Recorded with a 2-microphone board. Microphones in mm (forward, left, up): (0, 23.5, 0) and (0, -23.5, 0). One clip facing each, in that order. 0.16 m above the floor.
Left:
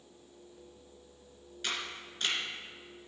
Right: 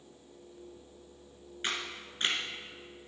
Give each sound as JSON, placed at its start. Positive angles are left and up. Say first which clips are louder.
{"t": 1.6, "sound": "a camera shutter", "louder": "right 1 dB", "side_deg": -30, "distance_m": 1.5}